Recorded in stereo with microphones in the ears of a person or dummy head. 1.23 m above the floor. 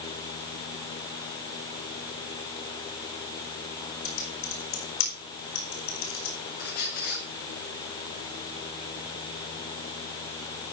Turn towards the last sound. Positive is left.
turn(degrees=55)  # may be behind; listen again after turning